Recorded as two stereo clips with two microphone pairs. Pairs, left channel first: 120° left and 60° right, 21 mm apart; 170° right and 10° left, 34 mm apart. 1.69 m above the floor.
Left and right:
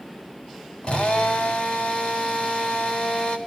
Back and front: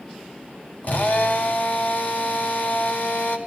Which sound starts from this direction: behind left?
A drill, at 0.8 s.